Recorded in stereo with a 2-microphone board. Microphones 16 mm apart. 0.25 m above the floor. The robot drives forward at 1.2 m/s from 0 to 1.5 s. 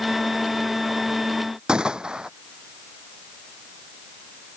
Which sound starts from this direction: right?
A gunshot, at 1.7 s.